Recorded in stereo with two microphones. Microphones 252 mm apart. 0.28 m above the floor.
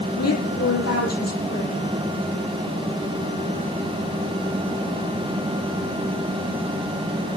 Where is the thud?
No thud in this recording.